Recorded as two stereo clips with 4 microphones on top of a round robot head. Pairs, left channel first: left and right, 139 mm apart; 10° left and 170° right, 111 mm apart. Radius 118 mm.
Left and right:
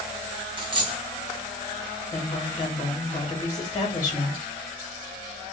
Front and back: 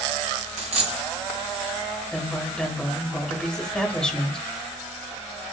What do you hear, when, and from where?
0.6 s a dropped coin: 145° right, 1.1 m
2.1 s a woman speaking: 90° left, 1.2 m